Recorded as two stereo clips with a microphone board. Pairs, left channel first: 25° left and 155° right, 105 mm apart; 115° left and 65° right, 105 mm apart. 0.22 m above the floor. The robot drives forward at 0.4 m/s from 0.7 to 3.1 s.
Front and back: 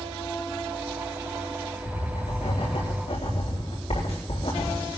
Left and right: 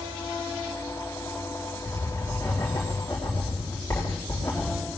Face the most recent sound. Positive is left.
turn(degrees=40)